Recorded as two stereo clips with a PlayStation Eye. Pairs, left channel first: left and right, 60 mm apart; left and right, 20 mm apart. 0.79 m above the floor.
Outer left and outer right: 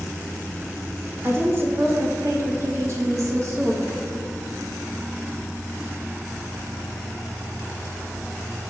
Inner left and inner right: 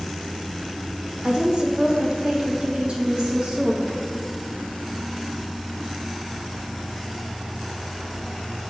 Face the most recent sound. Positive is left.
turn(degrees=-55)  # may be behind; listen again after turning